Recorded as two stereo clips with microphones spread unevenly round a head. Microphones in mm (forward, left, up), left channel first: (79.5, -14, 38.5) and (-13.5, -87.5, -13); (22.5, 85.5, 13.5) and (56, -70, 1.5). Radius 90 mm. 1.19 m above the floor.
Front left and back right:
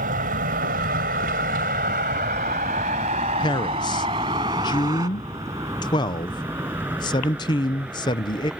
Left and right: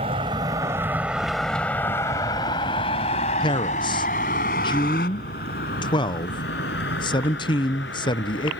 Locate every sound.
0.0 s a vehicle: 140° right; by 8.6 s 130° left
3.4 s a man speaking: 100° left